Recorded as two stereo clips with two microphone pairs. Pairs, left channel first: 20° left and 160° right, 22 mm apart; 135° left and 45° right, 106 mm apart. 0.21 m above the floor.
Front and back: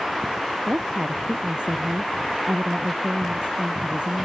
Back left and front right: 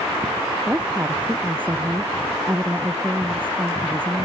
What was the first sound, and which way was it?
A woman speaking, 120° right.